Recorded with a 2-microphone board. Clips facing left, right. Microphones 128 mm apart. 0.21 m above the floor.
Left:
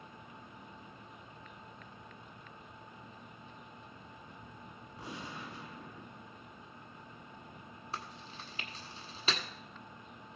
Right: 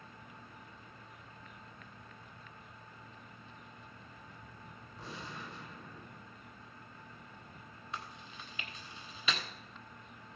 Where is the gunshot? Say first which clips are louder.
Left 2 dB; 15° left (ahead or behind), 1.4 m.